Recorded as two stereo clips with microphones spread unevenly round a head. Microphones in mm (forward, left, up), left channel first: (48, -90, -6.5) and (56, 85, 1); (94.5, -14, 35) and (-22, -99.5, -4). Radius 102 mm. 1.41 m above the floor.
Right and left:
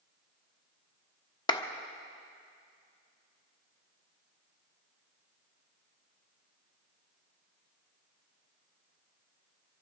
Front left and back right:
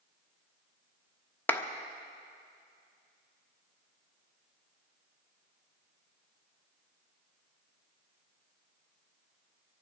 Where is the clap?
30° right, 1.0 m.